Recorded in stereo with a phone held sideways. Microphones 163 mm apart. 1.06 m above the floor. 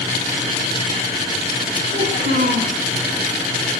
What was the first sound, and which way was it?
A child speaking, 85° right.